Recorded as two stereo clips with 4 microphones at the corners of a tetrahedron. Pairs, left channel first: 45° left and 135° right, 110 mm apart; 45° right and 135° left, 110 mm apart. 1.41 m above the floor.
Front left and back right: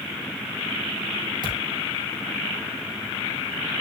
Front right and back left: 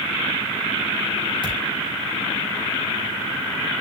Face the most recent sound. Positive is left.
turn(degrees=-90)